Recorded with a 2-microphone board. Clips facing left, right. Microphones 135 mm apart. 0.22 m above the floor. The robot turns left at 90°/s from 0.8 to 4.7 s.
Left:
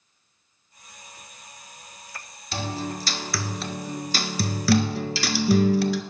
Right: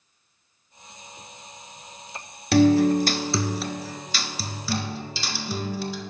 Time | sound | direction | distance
2.5 | a guitar | 80° right | 0.8 m